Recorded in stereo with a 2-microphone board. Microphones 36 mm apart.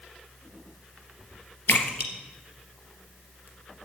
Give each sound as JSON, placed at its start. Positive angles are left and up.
{"t": 1.7, "sound": "a splash", "side_deg": 75, "distance_m": 3.0}